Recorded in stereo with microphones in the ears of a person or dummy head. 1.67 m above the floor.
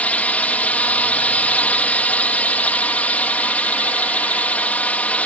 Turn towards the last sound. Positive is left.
turn(degrees=10)  # may be behind; listen again after turning